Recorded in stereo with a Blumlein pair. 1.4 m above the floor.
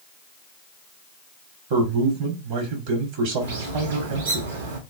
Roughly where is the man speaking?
Ahead right.